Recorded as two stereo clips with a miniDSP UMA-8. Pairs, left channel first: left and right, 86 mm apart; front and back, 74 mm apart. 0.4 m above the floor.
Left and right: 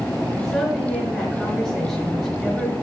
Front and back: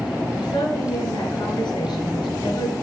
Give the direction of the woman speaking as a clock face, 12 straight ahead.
12 o'clock.